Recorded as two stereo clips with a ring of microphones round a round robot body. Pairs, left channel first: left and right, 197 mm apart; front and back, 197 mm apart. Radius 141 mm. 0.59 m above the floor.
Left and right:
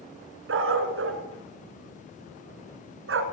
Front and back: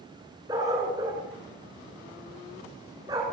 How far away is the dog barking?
About 3 m.